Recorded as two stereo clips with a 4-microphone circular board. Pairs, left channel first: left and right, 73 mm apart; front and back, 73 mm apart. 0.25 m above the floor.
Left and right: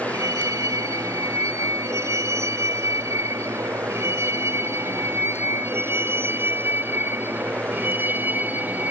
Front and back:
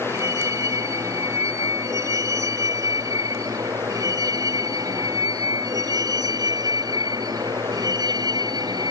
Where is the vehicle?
135° right; by 8.9 s 155° right.